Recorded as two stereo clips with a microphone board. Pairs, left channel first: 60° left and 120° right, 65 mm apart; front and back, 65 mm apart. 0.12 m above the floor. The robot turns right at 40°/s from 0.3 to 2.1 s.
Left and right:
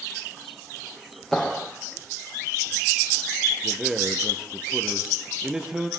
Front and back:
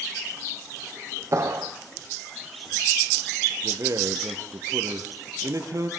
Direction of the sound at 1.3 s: 145° left.